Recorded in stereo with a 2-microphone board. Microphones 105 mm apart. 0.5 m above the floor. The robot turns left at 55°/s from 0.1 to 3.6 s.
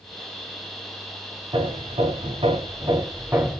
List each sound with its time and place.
1.5 s hammering: 65° right, 0.7 m; by 3.6 s straight behind, 0.7 m